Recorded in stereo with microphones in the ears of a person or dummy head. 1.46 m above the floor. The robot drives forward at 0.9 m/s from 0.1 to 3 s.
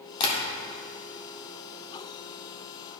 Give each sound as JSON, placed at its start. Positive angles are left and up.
{"t": 0.2, "sound": "tapping", "side_deg": 25, "distance_m": 1.6}